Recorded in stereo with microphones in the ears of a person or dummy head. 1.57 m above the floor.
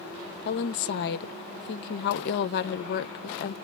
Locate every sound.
0.5 s a woman speaking: 55° left (ahead or behind), 0.8 m